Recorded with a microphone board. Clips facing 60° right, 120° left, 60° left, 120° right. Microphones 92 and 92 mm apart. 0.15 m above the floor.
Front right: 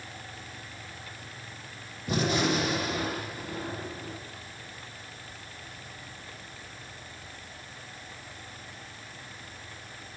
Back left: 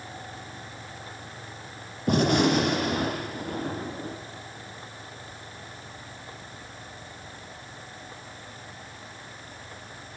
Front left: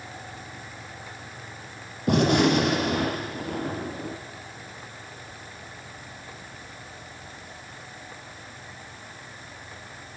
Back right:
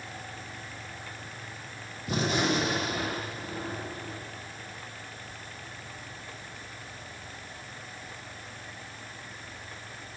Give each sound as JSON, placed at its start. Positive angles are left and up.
{"t": 2.1, "sound": "a gunshot", "azimuth_deg": 90, "distance_m": 6.0}